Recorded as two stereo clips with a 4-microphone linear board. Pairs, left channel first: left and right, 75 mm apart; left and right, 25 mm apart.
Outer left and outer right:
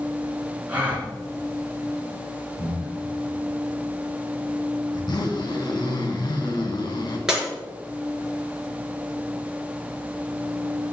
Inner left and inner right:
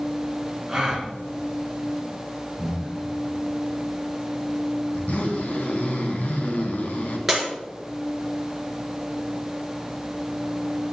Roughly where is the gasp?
Centre.